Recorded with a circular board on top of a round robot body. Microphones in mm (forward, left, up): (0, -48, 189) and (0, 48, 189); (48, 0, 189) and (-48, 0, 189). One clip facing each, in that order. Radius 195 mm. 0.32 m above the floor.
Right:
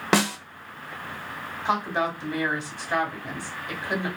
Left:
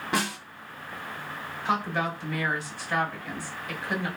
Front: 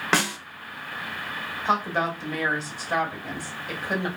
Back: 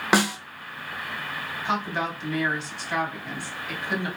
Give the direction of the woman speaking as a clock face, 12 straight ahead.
1 o'clock.